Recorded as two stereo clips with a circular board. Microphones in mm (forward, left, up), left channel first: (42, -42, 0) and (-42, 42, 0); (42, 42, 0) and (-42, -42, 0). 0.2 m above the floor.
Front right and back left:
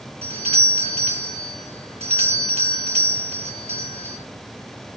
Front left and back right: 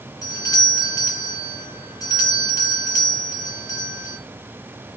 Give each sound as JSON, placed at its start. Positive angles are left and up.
{"t": 0.2, "sound": "a doorbell", "azimuth_deg": 105, "distance_m": 5.5}